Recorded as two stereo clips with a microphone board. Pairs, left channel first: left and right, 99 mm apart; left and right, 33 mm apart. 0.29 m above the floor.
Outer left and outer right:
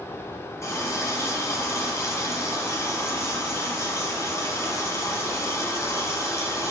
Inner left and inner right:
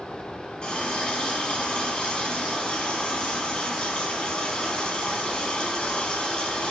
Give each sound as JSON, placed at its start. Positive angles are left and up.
{"t": 0.6, "sound": "a running tap", "side_deg": 30, "distance_m": 1.8}